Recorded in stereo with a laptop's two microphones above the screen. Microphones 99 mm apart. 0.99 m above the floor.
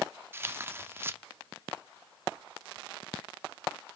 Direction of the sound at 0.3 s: 25° right (ahead or behind).